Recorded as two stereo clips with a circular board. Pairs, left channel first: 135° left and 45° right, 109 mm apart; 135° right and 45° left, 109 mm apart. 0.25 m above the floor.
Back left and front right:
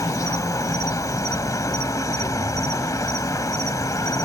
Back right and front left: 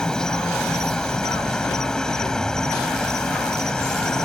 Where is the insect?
150° left.